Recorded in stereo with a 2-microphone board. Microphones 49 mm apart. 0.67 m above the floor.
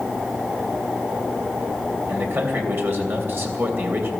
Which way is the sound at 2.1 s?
55° right (ahead or behind).